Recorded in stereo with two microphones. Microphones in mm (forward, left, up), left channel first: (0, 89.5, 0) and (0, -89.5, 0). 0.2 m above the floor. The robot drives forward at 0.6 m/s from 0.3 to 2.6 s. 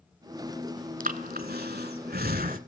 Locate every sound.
1.0 s breathing: 50° right (ahead or behind), 1.0 m